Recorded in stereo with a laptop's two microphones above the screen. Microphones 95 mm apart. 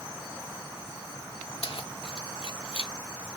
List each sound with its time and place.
1.6 s keys jangling: 80° left